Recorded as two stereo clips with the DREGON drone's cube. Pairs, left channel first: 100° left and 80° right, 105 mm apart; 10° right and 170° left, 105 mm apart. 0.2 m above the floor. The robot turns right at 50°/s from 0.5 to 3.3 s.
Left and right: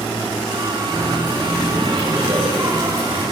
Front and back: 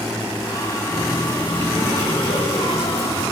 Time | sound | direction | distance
0.9 | a running tap | 115° right | 8.5 m